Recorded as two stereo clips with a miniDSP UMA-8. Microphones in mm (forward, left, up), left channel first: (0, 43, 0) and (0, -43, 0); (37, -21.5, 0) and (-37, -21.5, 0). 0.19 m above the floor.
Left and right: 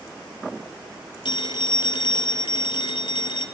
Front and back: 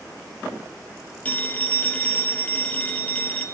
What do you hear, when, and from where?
1.2 s a phone ringing: 70° left, 3 m